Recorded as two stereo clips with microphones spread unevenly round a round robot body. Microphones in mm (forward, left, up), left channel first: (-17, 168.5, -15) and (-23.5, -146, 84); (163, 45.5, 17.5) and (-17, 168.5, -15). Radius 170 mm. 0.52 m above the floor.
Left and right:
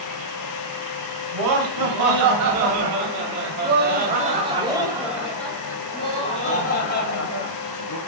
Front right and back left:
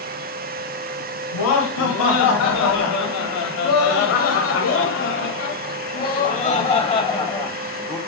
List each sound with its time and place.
1.3 s laughter: 55° right, 4.5 m; by 8.0 s 45° left, 4 m